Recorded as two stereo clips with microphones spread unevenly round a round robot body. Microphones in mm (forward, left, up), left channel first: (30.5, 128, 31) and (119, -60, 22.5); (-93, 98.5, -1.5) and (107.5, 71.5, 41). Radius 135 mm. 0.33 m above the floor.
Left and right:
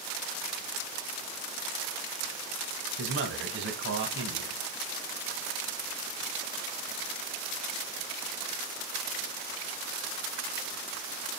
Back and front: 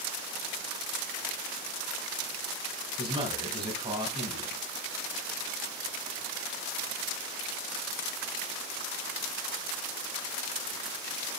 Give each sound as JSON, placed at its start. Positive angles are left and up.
{"t": 3.0, "sound": "a man speaking", "azimuth_deg": -85, "distance_m": 2.5}